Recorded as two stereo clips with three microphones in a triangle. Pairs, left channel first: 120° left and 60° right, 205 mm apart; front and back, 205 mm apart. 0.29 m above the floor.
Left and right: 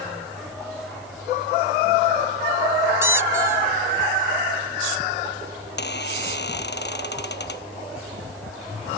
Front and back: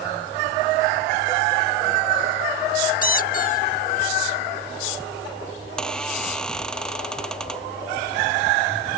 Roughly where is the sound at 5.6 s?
Left.